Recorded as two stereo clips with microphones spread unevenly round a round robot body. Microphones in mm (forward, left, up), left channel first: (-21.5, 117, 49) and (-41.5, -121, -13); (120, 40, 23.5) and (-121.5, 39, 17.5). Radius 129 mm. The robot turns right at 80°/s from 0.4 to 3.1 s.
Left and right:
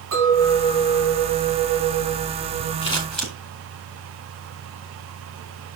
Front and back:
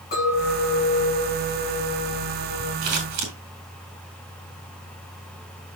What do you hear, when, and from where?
0.1 s a clink: 55° right, 6.5 m; by 2.7 s 130° left, 6.5 m
2.8 s scissors: 145° left, 4.5 m; by 3.3 s 170° left, 4.5 m